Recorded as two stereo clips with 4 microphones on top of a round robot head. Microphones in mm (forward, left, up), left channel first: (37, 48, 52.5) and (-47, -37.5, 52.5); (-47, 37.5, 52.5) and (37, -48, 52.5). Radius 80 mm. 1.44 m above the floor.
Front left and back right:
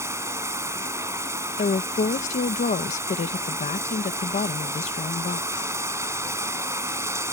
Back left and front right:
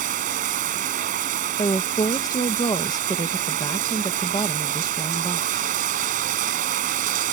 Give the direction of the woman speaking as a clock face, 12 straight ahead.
10 o'clock.